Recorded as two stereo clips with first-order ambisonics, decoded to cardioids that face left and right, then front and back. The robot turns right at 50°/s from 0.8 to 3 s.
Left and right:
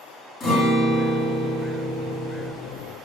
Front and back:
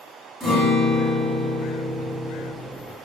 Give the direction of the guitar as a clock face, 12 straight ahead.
9 o'clock.